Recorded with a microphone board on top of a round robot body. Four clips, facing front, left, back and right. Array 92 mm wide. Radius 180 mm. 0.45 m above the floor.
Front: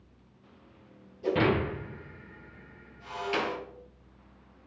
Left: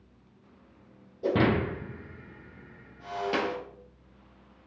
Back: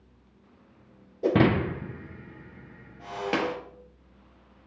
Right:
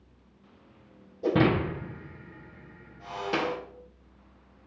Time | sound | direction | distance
1.2 | breaking glass | 175° right | 1.7 m